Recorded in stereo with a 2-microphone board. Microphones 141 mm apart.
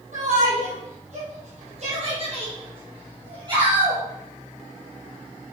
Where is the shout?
65° right (ahead or behind), 5.5 m; by 4.0 s 30° right (ahead or behind), 4.5 m.